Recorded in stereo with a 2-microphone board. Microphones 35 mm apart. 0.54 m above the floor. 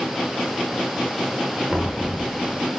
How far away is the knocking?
About 0.9 m.